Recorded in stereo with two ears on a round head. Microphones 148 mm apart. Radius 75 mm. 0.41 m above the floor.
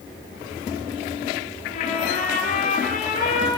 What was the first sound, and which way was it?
A trumpet, 50° left (ahead or behind).